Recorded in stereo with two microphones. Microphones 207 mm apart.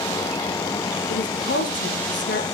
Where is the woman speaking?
65° left (ahead or behind), 3 m.